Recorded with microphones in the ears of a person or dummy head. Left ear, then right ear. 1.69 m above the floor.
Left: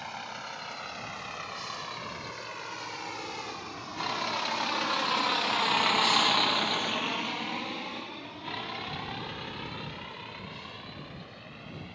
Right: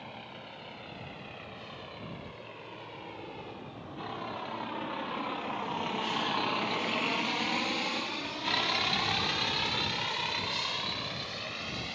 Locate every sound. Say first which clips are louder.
0.0 s a vehicle: left 7 dB; 55° left (ahead or behind); by 12.0 s 35° right (ahead or behind)